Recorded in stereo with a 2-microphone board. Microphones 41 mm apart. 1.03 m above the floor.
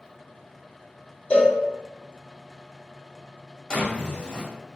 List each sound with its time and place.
1.3 s a cowbell: 35° left (ahead or behind), 0.6 m
3.7 s a drawer: 20° left (ahead or behind), 0.6 m